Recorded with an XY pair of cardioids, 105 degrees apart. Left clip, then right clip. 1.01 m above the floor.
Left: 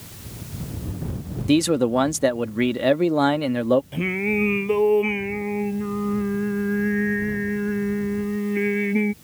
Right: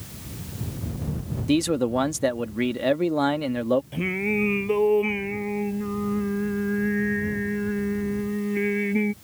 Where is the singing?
10° left.